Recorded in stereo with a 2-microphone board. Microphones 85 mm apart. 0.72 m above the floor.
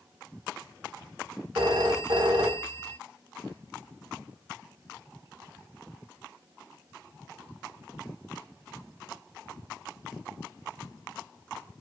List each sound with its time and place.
1.6 s a phone ringing: 75° right (ahead or behind), 0.9 m